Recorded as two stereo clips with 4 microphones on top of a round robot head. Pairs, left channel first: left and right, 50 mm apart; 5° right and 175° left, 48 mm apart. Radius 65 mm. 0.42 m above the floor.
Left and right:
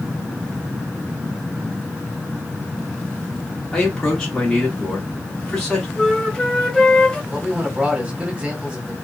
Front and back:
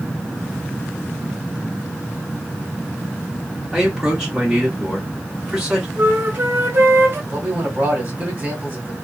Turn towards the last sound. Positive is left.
turn(degrees=-150)